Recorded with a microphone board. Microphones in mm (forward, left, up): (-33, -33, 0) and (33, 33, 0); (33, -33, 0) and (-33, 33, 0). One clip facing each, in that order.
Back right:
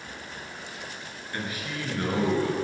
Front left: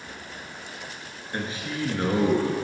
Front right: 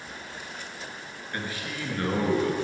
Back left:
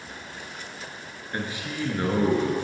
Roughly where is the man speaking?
Left.